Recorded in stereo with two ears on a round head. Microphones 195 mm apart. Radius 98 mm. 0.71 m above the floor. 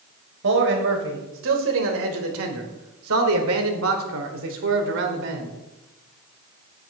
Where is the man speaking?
60° right (ahead or behind), 3.5 m; by 5.5 s 50° right (ahead or behind), 2.5 m.